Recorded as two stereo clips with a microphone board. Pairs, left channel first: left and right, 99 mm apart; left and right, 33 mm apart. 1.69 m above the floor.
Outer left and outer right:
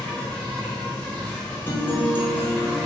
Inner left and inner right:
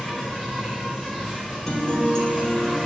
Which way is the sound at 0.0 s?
10° left (ahead or behind).